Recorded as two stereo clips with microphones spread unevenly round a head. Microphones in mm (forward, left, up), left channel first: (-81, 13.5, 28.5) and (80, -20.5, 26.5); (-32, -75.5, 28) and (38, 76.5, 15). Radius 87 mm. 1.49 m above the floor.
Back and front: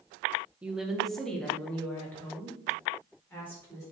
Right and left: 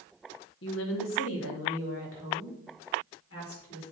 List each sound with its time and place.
0.6 s a woman speaking: 95° right, 1.2 m; by 3.8 s 115° right, 5 m